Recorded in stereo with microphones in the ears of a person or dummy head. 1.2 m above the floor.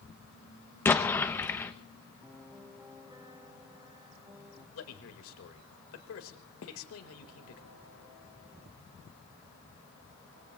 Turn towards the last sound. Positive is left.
turn(degrees=55)  # may be behind; listen again after turning